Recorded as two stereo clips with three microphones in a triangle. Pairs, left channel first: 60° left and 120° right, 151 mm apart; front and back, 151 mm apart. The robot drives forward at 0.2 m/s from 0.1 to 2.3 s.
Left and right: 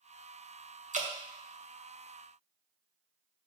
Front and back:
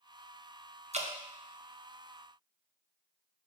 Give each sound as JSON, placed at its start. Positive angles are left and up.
{"t": 0.9, "sound": "dripping", "azimuth_deg": -145, "distance_m": 0.9}